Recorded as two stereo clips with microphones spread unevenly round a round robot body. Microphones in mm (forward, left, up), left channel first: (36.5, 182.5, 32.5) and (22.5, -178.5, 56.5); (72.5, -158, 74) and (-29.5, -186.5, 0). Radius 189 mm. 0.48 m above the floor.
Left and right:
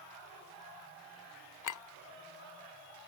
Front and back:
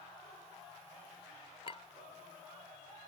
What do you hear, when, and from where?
1.6 s a clink: 90° left